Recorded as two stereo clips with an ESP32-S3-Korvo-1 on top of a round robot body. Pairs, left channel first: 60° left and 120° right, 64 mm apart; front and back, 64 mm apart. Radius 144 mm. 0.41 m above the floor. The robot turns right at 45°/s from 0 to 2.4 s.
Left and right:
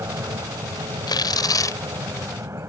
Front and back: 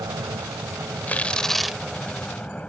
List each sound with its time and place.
0.0 s an aircraft: 160° right; by 2.7 s 70° right
1.1 s tearing paper: 65° left; by 1.8 s 100° left